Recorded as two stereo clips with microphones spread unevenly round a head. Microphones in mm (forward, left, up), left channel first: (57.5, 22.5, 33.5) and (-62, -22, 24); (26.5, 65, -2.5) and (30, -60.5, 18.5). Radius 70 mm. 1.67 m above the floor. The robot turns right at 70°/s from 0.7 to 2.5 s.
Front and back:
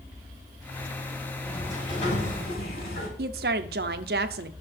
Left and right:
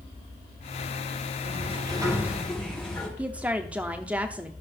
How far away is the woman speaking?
About 0.7 m.